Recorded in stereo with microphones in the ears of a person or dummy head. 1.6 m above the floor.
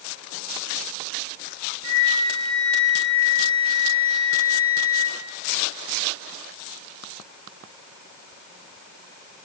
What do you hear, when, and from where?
1.8 s a flute: 85° left, 8 m